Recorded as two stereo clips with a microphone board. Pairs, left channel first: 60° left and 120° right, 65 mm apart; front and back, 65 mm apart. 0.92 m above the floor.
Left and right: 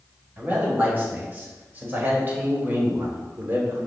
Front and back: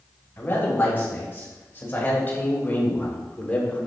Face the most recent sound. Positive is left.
turn(degrees=-70)